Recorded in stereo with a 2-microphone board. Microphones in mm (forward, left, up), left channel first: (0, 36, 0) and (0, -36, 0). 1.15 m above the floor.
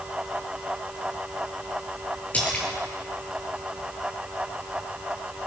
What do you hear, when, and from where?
2.3 s a splash: 20° left (ahead or behind), 5 m